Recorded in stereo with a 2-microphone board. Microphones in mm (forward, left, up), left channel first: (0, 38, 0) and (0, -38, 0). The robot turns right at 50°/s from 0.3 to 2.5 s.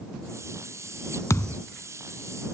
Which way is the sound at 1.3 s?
45° left (ahead or behind).